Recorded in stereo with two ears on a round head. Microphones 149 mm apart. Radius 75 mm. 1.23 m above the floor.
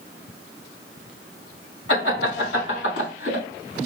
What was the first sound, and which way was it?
Laughter, 85° left.